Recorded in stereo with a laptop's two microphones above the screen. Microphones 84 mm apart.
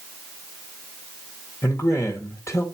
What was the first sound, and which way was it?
A man speaking, 35° left (ahead or behind).